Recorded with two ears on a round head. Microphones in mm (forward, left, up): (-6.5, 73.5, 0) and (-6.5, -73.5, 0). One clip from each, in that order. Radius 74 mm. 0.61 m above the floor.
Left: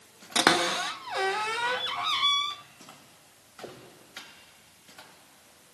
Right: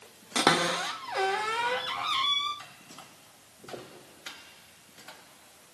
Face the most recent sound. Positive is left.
turn(degrees=15)  # may be behind; listen again after turning